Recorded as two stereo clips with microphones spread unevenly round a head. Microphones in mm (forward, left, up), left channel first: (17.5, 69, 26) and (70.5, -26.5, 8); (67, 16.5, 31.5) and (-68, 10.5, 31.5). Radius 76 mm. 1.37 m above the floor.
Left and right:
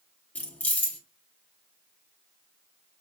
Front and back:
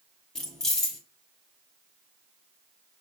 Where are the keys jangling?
85° left, 0.6 m.